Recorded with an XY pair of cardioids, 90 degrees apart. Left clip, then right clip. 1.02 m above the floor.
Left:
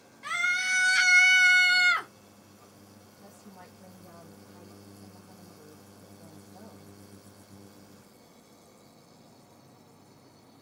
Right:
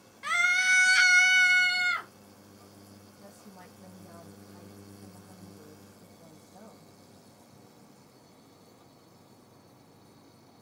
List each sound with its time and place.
0.2 s a scream: 35° right, 1.5 m; by 2.1 s 60° left, 1.0 m
3.2 s a woman speaking: 5° right, 1.1 m